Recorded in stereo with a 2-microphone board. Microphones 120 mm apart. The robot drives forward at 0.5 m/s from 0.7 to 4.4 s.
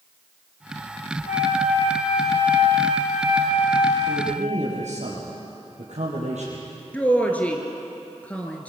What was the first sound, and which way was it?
A flute, 85° left.